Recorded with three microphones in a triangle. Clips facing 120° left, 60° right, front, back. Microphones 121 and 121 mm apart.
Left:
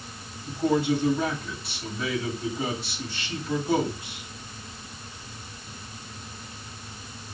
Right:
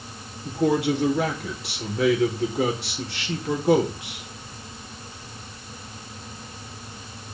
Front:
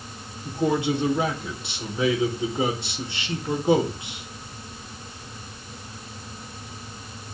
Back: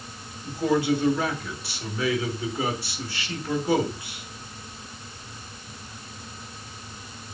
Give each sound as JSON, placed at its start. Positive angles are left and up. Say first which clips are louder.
{"t": 0.5, "sound": "a man speaking", "louder": "right 2 dB, even", "azimuth_deg": -70, "distance_m": 4.0}